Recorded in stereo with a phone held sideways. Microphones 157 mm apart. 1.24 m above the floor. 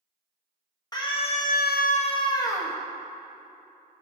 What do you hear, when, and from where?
0.9 s a scream: 25° left (ahead or behind), 1.3 m; by 2.8 s 15° left (ahead or behind), 1.7 m